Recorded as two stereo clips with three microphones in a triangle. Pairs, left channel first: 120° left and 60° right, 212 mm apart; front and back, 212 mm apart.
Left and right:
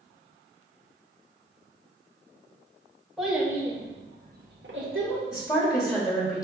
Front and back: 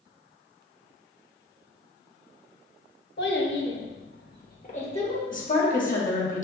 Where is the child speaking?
30° left, 1.1 m; by 5.2 s 65° right, 1.1 m.